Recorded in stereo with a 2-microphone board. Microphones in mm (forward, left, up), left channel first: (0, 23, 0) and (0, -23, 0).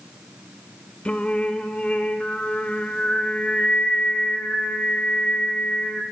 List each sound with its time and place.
1.1 s singing: 25° left (ahead or behind), 0.9 m